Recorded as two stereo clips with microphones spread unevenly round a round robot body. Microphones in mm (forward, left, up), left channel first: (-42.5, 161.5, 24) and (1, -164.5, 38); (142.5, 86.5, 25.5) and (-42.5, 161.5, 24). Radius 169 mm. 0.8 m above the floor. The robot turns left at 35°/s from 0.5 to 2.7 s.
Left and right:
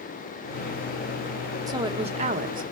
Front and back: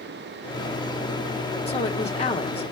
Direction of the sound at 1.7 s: 10° right.